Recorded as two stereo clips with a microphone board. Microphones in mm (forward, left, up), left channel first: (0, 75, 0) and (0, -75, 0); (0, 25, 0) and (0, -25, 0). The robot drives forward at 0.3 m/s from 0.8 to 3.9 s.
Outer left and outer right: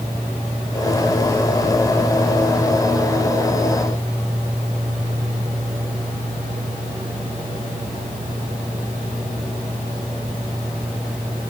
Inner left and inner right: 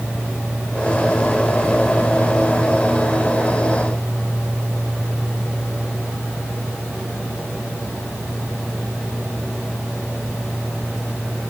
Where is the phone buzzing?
No phone buzzing in this recording.